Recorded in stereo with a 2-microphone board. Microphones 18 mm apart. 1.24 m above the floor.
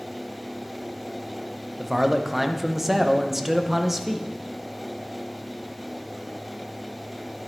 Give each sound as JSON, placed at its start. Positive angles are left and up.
{"t": 1.8, "sound": "a man speaking", "side_deg": -10, "distance_m": 0.7}